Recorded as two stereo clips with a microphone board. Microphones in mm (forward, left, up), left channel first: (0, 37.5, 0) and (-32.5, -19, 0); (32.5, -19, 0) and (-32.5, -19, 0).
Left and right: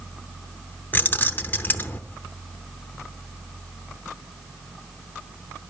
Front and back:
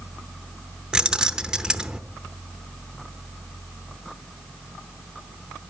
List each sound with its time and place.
0.9 s keys jangling: 105° left, 0.7 m